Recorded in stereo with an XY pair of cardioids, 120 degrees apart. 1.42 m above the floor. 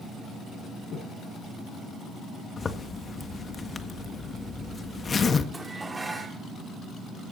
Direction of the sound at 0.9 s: 70° left.